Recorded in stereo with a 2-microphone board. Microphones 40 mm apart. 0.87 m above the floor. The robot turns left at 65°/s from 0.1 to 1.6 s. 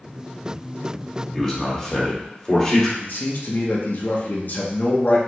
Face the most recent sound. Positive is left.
turn(degrees=55)  # may be behind; listen again after turning